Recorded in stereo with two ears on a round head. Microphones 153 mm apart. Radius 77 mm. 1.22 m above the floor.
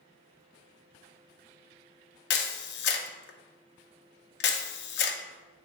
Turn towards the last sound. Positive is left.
turn(degrees=70)  # may be behind; listen again after turning